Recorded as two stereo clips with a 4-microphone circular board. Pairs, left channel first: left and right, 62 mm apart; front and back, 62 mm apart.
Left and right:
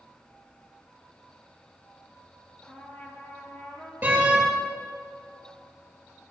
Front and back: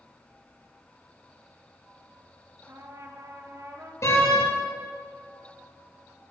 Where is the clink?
No clink in this recording.